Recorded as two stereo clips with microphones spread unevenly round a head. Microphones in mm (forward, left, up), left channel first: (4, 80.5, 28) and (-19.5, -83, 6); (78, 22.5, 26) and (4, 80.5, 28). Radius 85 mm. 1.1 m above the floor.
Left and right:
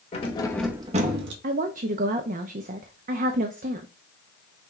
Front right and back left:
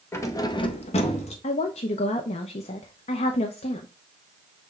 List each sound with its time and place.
0.1 s keys jangling: 25° left, 1.3 m; by 1.3 s 75° right, 1.1 m
1.4 s a woman speaking: 55° right, 0.5 m